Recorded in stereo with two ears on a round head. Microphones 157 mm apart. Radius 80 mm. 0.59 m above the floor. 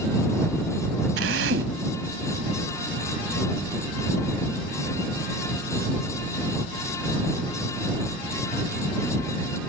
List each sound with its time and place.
1.2 s a drill: 80° right